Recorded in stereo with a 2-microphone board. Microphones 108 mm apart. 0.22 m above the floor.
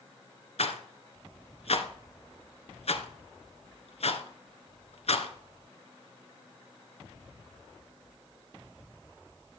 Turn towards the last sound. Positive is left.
turn(degrees=70)  # may be behind; listen again after turning